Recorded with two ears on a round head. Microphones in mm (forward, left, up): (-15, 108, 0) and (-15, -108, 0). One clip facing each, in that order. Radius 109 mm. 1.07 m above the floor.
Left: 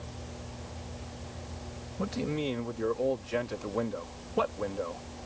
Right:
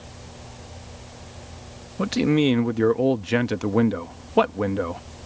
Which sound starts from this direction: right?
A man speaking, at 2.0 s.